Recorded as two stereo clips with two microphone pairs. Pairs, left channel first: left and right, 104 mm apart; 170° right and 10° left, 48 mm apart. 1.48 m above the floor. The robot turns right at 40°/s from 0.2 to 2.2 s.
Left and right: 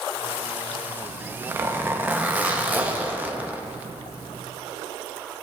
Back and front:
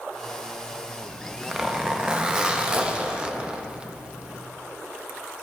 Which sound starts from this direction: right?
A zipper, at 1.0 s.